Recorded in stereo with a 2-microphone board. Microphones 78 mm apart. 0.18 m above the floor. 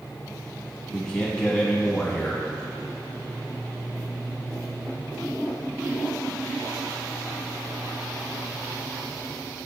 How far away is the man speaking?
About 1.1 m.